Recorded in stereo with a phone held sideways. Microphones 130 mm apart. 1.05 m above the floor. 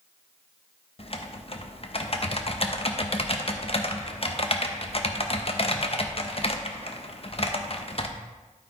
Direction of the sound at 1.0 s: 45° left (ahead or behind).